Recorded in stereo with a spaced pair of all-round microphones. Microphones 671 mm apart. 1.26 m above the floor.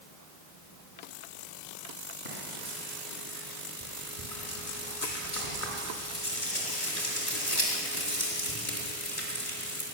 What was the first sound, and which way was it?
Frying, 50° left (ahead or behind).